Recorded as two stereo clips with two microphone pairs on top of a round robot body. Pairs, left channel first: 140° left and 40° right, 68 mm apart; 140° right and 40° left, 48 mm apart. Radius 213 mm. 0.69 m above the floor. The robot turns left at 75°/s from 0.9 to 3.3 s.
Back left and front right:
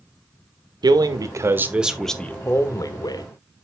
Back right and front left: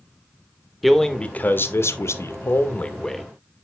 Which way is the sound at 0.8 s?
50° right.